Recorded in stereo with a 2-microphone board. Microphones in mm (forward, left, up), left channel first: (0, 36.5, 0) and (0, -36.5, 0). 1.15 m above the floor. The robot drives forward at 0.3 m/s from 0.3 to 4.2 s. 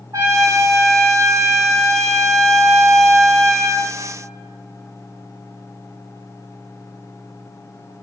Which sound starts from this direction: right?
A trumpet, at 0.1 s.